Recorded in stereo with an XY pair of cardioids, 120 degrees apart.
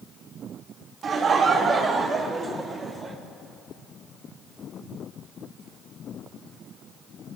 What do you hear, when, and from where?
1.0 s laughter: 45° right, 2.0 m; by 3.2 s 20° right, 2.5 m